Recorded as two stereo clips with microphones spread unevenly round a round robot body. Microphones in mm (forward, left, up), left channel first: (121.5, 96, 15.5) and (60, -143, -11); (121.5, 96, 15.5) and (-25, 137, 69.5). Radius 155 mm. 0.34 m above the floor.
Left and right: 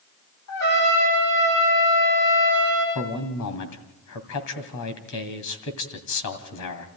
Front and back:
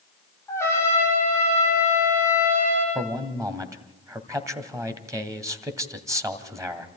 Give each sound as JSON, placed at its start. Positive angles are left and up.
{"t": 0.5, "sound": "a trumpet", "azimuth_deg": 60, "distance_m": 10.0}
{"t": 3.0, "sound": "a man speaking", "azimuth_deg": 85, "distance_m": 2.5}